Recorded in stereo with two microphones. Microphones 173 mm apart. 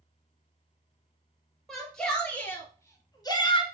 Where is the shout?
Centre (ahead or behind), 3 m; by 3.6 s 30° left (ahead or behind), 1.8 m.